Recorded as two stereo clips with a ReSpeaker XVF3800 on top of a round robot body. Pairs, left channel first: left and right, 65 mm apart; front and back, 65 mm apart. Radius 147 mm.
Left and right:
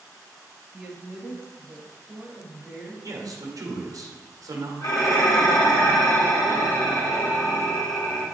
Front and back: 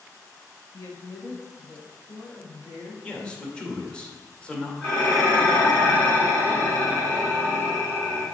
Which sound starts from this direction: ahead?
A woman speaking, at 0.7 s.